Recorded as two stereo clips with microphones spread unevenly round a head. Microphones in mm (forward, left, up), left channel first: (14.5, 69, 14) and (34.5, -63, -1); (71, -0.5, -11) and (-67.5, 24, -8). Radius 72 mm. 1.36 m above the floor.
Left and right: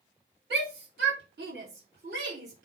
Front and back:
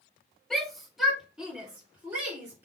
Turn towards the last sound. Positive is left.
turn(degrees=-115)